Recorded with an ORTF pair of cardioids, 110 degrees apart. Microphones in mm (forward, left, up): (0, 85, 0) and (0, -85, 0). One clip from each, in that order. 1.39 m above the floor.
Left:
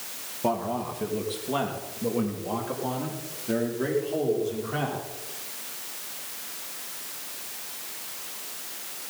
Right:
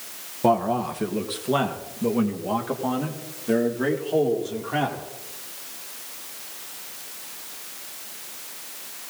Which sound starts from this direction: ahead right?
A man speaking, at 0.4 s.